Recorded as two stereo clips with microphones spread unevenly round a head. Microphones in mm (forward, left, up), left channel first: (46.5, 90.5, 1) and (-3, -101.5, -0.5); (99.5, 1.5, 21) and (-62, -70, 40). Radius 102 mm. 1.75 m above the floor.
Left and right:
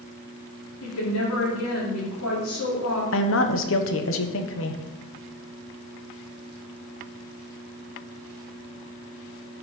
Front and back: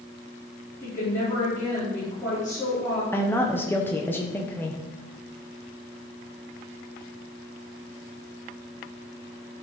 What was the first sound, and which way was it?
A woman speaking, 105° left.